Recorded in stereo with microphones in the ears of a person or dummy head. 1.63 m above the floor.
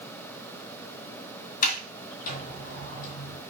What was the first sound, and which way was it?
A sliding door, 40° left (ahead or behind).